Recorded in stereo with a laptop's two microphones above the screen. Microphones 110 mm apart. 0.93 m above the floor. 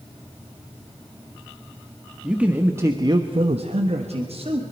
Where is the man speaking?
10° right (ahead or behind), 1.4 m; by 4.6 s 60° right (ahead or behind), 1.4 m.